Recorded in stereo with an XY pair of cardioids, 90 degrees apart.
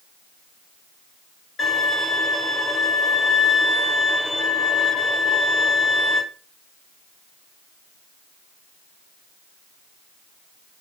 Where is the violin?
40° left, 2 m.